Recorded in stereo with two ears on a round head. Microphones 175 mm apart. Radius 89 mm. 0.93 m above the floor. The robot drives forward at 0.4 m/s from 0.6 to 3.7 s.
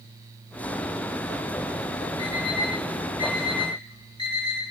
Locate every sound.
2.2 s an alarm clock: 30° left (ahead or behind), 4 m; by 4.6 s 25° left (ahead or behind), 4.5 m